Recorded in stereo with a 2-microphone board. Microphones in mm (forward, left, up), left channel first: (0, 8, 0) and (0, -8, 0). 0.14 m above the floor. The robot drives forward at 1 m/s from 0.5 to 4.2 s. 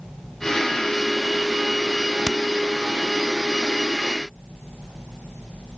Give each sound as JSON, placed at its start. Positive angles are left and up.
{"t": 2.2, "sound": "hammering", "side_deg": -10}